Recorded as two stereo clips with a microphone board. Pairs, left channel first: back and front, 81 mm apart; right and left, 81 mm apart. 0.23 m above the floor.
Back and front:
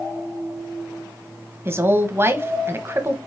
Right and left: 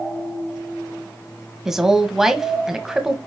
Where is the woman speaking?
10° left, 1.1 m.